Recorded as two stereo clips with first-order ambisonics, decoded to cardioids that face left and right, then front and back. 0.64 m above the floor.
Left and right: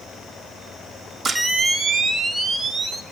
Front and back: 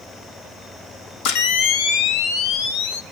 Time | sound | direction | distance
1.2 | a camera shutter | 10° right | 0.7 m